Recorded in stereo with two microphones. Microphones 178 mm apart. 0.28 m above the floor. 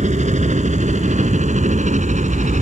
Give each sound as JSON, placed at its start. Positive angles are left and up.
{"t": 0.0, "sound": "a helicopter", "side_deg": -40}